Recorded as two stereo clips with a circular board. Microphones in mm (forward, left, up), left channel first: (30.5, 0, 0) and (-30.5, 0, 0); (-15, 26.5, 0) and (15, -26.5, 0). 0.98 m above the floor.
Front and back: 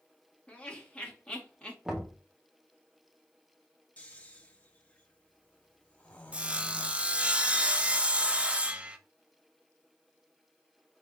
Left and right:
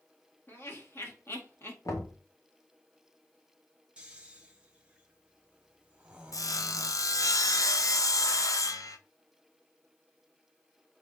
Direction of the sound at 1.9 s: 100° left.